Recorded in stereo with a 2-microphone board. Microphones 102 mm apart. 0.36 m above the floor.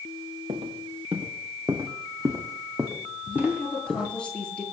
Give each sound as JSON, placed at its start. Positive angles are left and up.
{"t": 0.5, "sound": "footsteps", "side_deg": -75, "distance_m": 2.5}
{"t": 3.3, "sound": "a woman speaking", "side_deg": 10, "distance_m": 8.0}